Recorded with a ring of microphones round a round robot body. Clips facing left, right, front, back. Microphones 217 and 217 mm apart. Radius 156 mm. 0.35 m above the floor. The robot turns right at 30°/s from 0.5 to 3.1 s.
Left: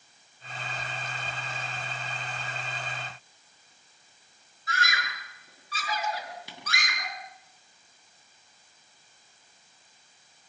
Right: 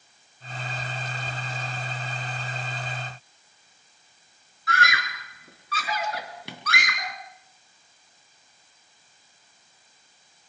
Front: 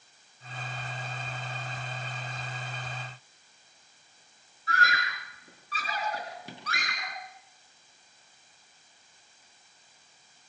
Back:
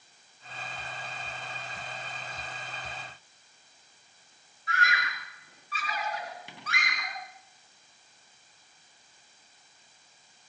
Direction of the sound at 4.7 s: 65° right.